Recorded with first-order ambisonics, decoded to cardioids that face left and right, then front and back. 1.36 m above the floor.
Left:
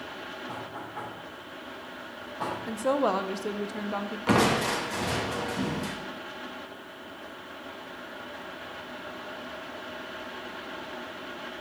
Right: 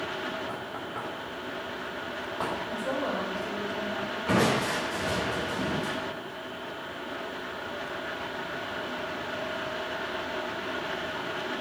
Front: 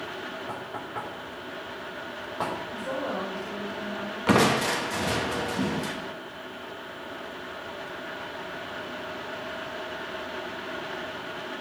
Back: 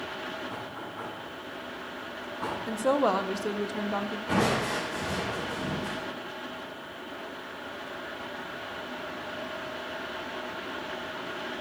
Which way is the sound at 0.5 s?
25° right.